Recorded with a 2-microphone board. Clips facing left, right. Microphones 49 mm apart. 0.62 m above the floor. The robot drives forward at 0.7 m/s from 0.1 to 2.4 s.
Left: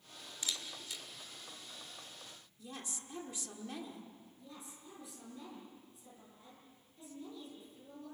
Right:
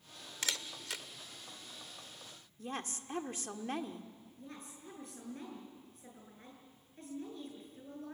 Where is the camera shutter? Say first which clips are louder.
Right 3 dB; 80° right, 1.0 m; by 1.0 s 65° right (ahead or behind), 1.1 m.